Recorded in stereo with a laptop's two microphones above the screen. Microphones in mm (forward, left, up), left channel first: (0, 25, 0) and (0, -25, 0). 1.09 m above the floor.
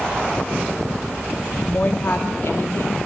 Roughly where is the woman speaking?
Left.